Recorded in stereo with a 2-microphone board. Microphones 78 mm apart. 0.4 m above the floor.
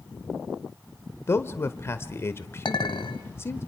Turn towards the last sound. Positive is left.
turn(degrees=70)  # may be behind; listen again after turning